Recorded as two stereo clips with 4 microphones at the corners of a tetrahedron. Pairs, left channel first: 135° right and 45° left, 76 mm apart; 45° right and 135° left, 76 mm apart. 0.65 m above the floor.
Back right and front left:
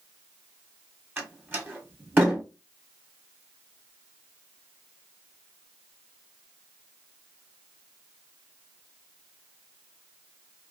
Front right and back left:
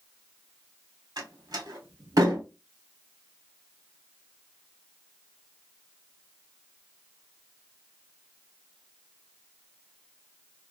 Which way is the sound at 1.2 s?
105° left.